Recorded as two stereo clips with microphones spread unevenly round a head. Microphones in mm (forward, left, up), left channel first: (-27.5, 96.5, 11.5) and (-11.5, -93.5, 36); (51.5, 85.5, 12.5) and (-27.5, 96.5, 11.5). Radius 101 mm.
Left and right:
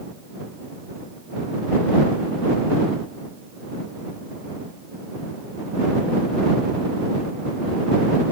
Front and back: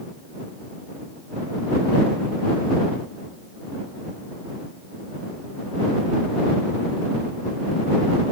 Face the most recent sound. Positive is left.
No sound to turn to.